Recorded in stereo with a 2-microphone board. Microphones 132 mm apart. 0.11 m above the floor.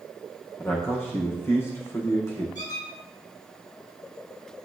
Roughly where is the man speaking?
Left.